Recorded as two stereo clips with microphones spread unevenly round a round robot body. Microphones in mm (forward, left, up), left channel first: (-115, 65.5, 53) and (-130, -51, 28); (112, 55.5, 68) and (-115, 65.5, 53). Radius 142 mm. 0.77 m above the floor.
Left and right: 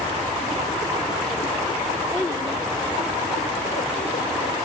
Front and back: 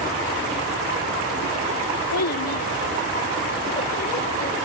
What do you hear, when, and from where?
2.1 s a child speaking: 10° right; by 4.5 s 50° left